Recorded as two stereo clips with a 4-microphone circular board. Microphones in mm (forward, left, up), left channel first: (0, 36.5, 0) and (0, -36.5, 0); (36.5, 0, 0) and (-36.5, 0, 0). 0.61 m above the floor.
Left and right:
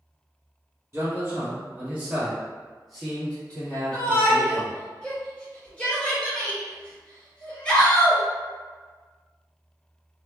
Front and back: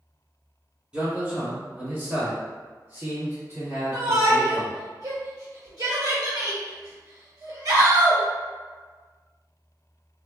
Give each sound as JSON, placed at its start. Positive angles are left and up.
{"t": 0.9, "sound": "a man speaking", "azimuth_deg": -115, "distance_m": 1.5}
{"t": 3.9, "sound": "a shout", "azimuth_deg": 160, "distance_m": 1.6}